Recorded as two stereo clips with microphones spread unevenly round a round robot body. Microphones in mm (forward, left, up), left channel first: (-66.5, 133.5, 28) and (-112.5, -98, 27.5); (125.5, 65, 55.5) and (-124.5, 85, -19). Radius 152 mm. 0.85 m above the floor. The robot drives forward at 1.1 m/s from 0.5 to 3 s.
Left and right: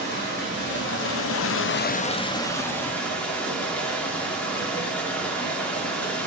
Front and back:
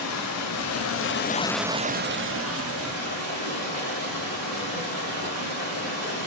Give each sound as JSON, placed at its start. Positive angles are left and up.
{"t": 0.0, "sound": "running water", "azimuth_deg": 25, "distance_m": 1.3}